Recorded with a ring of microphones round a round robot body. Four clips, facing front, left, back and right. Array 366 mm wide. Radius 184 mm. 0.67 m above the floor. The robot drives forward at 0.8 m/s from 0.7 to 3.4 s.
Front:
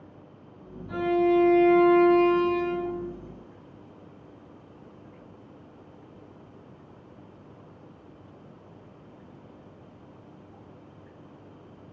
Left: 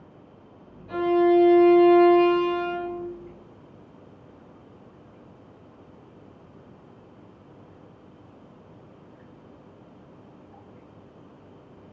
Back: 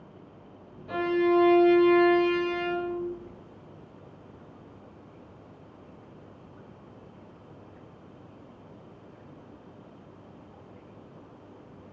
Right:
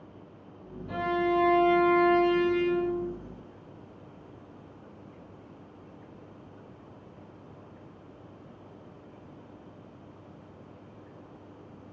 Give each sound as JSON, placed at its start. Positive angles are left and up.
{"t": 0.9, "sound": "a violin", "azimuth_deg": 180, "distance_m": 3.5}